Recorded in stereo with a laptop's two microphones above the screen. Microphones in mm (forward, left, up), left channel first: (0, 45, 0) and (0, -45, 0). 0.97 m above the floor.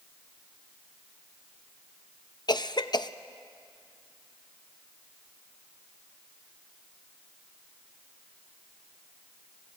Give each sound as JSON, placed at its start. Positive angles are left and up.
{"t": 2.5, "sound": "a cough", "side_deg": 50, "distance_m": 0.7}